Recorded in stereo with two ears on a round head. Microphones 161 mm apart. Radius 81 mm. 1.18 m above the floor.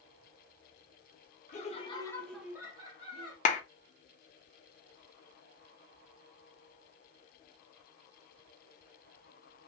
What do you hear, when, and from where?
1.5 s laughter: 40° left (ahead or behind), 0.9 m; by 3.4 s 30° right (ahead or behind), 1.3 m
3.5 s a clap: 40° left (ahead or behind), 0.7 m